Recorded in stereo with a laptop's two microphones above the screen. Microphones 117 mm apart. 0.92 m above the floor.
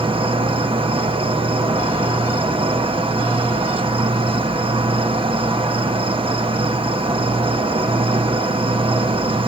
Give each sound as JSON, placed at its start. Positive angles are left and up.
{"t": 0.0, "sound": "an insect", "side_deg": -50, "distance_m": 1.1}